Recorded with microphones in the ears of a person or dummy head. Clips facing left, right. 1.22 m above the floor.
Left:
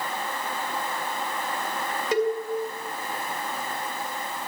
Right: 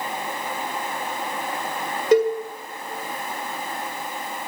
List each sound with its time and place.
2.1 s a cowbell: 60° right (ahead or behind), 2.0 m